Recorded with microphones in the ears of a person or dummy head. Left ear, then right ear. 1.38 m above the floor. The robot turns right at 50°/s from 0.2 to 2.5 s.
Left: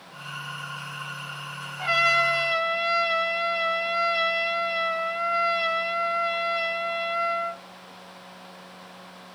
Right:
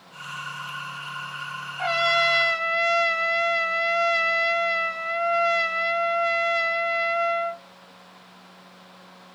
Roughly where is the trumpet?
Behind right.